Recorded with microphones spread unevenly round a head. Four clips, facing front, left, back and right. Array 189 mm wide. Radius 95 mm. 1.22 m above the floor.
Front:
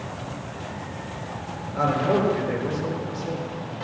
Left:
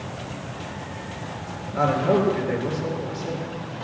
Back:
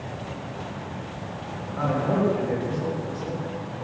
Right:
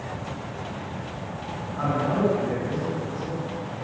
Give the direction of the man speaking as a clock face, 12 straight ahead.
10 o'clock.